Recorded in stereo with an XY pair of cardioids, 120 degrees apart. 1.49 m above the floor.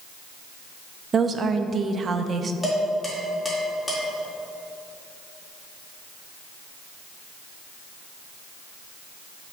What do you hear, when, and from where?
1.1 s a woman speaking: 35° right, 0.8 m
2.6 s dishes clattering: 5° left, 3 m